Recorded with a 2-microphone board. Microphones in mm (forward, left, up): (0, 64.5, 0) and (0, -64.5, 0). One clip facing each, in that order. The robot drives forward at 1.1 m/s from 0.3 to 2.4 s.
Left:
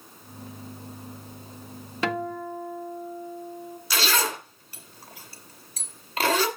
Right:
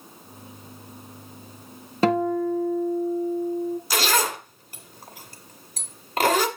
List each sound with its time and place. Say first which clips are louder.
2.0 s a guitar: right 8 dB; 35° right (ahead or behind), 0.7 m; by 3.8 s 60° right (ahead or behind), 0.5 m
3.9 s a zipper: even; 45° right (ahead or behind), 1.5 m